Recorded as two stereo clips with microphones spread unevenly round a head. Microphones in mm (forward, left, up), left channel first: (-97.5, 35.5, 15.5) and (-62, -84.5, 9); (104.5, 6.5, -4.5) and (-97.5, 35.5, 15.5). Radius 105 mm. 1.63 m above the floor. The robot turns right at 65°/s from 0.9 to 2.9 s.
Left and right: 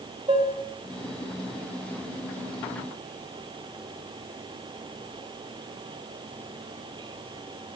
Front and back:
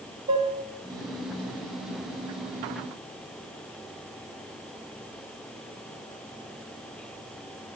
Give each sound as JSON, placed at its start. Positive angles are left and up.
{"t": 0.3, "sound": "dishes clattering", "azimuth_deg": -130, "distance_m": 2.0}